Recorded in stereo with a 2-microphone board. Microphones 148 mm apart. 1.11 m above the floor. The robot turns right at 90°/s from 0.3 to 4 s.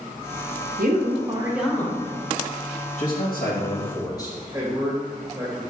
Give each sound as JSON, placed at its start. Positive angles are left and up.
{"t": 0.8, "sound": "a woman speaking", "azimuth_deg": -80, "distance_m": 1.0}
{"t": 3.0, "sound": "a man speaking", "azimuth_deg": 60, "distance_m": 1.3}
{"t": 4.5, "sound": "a man speaking", "side_deg": -15, "distance_m": 1.5}